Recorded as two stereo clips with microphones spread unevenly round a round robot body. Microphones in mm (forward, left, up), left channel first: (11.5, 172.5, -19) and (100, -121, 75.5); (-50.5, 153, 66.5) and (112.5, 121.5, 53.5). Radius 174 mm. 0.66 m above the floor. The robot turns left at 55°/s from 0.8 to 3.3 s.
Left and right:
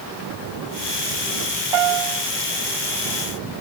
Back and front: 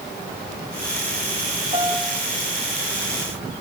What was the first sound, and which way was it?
A piano, 85° right.